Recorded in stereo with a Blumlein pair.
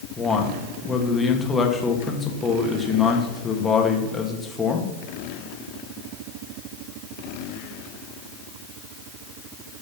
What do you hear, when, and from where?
0.2 s a man speaking: 15° left, 2 m